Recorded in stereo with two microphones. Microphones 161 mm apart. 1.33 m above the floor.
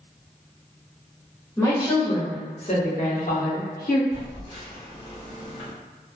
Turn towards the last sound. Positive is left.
turn(degrees=45)  # may be behind; listen again after turning